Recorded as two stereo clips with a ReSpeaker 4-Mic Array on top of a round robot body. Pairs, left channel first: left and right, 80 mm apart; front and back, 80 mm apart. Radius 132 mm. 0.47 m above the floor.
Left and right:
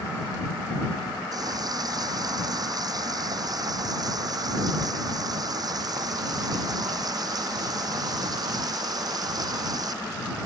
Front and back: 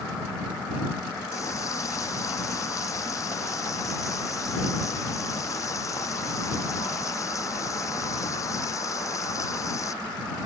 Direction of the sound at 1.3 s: 50° right.